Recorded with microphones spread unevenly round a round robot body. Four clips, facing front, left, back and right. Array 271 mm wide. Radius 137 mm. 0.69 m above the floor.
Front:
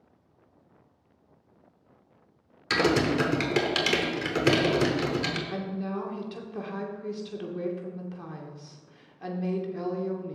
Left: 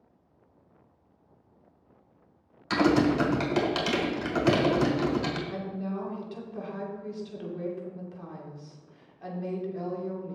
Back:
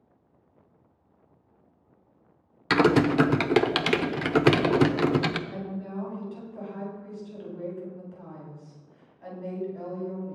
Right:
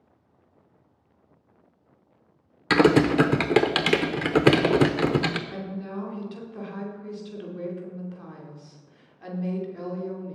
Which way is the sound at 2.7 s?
110° right.